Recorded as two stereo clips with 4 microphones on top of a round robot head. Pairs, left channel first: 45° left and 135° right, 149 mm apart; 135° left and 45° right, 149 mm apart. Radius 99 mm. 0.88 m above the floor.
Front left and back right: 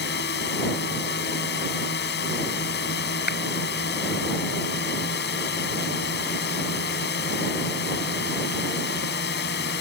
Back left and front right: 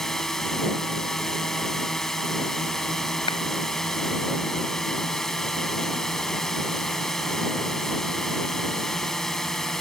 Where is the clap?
75° left.